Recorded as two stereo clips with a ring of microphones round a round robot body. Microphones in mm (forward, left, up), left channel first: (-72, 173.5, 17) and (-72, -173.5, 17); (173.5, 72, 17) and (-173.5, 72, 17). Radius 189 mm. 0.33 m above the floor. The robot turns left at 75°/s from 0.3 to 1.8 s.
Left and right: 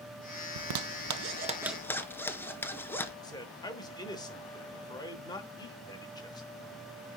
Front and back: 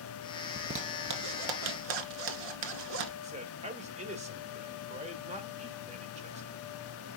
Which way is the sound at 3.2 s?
150° left.